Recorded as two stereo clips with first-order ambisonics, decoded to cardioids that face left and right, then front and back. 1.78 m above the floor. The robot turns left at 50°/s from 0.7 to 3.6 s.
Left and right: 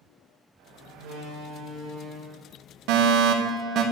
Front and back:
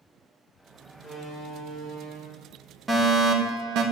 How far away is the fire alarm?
About 2 m.